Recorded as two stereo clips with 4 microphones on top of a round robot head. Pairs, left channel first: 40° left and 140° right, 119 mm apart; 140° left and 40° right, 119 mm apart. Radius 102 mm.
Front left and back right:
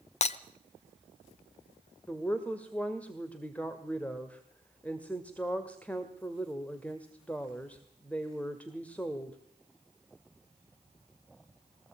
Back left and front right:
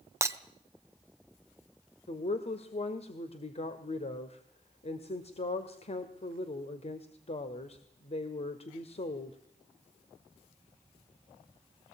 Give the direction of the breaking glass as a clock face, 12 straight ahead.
11 o'clock.